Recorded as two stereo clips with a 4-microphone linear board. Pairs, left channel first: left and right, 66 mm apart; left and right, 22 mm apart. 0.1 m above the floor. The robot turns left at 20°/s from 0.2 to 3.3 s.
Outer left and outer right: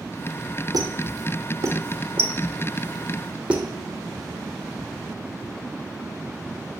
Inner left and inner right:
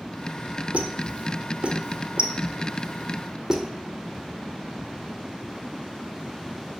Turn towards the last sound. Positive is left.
turn(degrees=-15)  # may be behind; listen again after turning